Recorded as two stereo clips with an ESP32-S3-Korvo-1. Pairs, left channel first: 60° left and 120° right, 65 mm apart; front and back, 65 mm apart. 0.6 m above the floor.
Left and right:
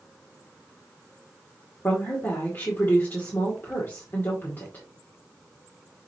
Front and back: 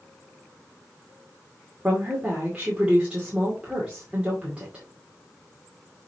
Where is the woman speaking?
105° left, 2.0 m.